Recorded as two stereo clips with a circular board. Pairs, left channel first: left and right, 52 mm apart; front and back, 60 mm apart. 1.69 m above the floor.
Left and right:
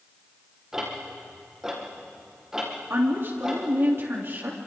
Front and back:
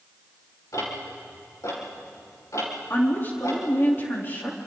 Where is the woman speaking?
55° right, 3.5 m.